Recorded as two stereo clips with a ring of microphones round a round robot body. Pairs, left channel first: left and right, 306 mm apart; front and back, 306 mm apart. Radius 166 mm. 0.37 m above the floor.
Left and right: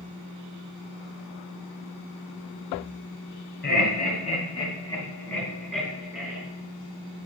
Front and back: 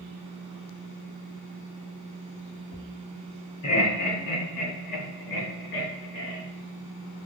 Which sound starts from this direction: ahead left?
Laughter, at 3.6 s.